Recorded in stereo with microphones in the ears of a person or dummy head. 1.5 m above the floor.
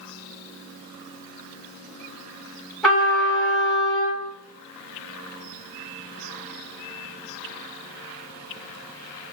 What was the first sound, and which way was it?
A trumpet, centre (ahead or behind).